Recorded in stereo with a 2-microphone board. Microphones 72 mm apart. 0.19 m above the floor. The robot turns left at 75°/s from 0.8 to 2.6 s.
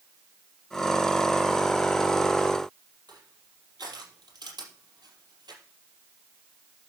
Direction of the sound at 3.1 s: 70° right (ahead or behind).